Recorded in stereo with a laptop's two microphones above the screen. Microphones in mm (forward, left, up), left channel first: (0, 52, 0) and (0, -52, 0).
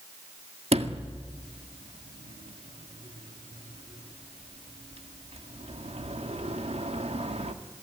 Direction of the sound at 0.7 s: 80° right.